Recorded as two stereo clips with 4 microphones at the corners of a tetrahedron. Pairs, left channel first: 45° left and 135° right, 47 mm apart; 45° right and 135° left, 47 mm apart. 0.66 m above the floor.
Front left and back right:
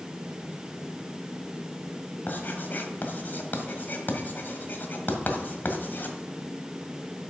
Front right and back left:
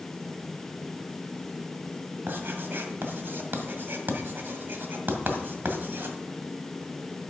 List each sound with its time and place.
2.3 s writing: 95° left, 1.6 m